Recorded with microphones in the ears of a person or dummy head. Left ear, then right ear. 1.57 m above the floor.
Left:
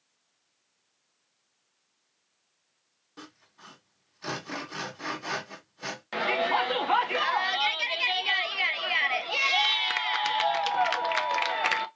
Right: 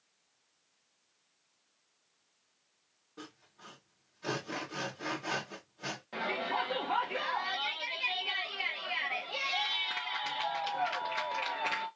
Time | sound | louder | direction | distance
3.2 | sawing | left 2 dB | 80° left | 1.8 m
6.1 | a shout | left 8 dB | 55° left (ahead or behind) | 0.6 m